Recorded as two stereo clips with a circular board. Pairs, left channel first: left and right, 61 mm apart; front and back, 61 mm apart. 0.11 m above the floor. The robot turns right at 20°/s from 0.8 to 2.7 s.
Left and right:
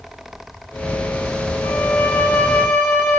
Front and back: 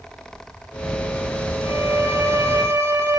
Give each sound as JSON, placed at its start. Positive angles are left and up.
{"t": 1.6, "sound": "a violin", "azimuth_deg": 135, "distance_m": 2.5}